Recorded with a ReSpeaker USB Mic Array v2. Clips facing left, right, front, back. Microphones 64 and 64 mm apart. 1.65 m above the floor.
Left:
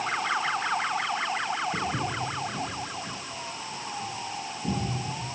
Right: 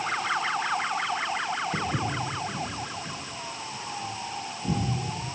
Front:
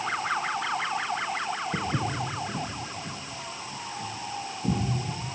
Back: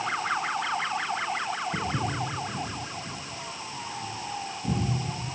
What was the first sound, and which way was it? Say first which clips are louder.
Footsteps: right 1 dB, even; 25° right.